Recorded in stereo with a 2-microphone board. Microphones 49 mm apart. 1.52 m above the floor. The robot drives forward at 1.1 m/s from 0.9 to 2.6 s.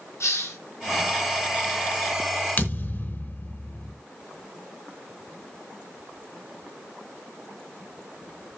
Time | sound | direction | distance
0.2 | a hiss | 60° left (ahead or behind) | 6 m
2.6 | a thud | 40° left (ahead or behind) | 3 m